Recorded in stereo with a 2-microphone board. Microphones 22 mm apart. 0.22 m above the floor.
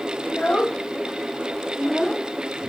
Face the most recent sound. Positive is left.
turn(degrees=20)  # may be behind; listen again after turning